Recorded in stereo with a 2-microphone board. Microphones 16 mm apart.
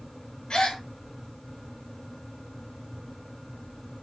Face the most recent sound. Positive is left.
turn(degrees=80)